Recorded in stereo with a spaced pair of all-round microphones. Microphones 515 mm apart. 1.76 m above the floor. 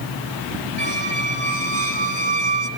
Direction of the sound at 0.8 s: 50° right (ahead or behind).